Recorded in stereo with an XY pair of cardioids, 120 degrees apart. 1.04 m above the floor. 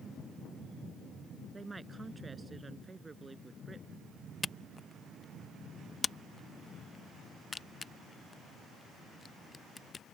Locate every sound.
1.5 s a woman speaking: 20° right
4.4 s a camera shutter: 30° left